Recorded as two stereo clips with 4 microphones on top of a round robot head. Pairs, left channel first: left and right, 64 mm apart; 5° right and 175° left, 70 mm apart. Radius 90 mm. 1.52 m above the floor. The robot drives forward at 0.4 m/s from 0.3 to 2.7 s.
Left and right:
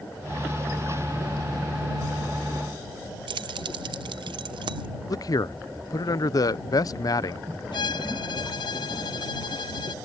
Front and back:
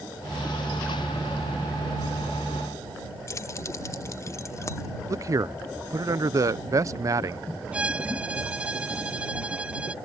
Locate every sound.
3.3 s keys jangling: 65° right
5.1 s a man speaking: 130° left
7.7 s a violin: 100° left